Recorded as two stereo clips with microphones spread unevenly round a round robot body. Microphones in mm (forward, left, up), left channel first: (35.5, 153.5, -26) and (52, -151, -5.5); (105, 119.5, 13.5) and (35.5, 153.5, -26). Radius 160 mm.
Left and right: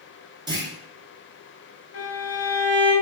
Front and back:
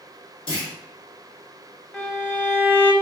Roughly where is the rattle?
I don't hear a rattle.